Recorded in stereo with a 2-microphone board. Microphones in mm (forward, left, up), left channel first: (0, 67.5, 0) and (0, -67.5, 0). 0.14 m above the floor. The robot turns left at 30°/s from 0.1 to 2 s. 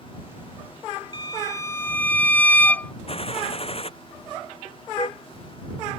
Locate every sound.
1.1 s a violin: 35° left (ahead or behind); by 2.9 s 15° left (ahead or behind)
3.1 s a gunshot: 45° left (ahead or behind)
5.0 s a car horn: 40° left (ahead or behind)